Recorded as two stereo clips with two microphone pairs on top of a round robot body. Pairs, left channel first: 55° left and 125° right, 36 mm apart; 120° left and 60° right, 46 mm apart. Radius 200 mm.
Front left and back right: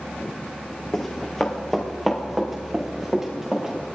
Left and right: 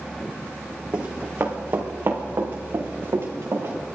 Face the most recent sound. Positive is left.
turn(degrees=-50)